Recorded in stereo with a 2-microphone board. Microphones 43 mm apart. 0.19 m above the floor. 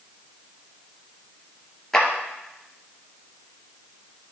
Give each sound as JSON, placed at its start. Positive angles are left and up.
{"t": 1.9, "sound": "a clap", "side_deg": 10, "distance_m": 2.5}